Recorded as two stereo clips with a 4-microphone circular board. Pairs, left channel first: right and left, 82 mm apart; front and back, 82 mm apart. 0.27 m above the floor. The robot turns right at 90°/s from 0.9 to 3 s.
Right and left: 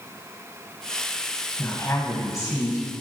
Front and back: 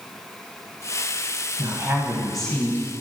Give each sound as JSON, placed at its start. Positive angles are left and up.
{"t": 1.6, "sound": "a woman speaking", "azimuth_deg": -155, "distance_m": 1.8}